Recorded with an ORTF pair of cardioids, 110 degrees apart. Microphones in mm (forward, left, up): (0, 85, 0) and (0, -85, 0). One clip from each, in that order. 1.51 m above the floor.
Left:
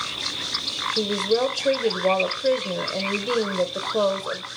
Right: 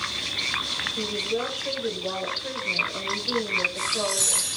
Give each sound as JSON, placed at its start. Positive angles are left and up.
{"t": 1.0, "sound": "a woman speaking", "azimuth_deg": 65, "distance_m": 1.3}